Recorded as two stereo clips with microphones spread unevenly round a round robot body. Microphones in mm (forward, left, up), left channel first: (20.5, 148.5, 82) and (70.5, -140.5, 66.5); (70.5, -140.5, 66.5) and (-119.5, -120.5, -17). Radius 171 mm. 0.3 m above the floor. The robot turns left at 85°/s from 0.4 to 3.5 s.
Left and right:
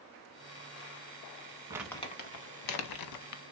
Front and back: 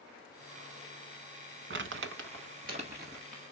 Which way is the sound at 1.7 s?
160° right.